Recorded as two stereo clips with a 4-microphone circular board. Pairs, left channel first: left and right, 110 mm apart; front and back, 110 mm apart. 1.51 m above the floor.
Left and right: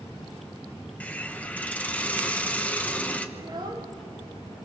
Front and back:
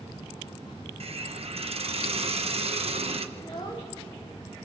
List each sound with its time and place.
1.0 s a hiss: 165° left, 1.0 m
3.4 s a child speaking: 45° right, 2 m